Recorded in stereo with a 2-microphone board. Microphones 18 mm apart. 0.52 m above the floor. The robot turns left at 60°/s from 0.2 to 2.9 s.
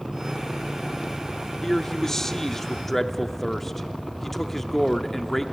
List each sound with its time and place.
1.6 s a man speaking: 25° left (ahead or behind), 0.9 m; by 5.4 s 15° left (ahead or behind), 0.9 m